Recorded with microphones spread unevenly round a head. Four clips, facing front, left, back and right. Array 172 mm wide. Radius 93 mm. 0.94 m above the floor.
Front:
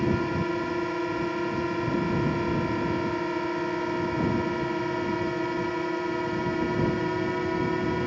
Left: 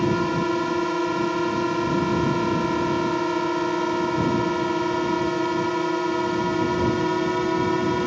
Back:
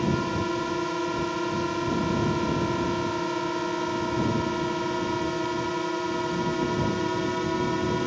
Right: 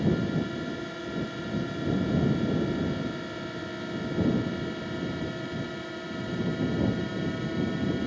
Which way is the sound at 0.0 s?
85° left.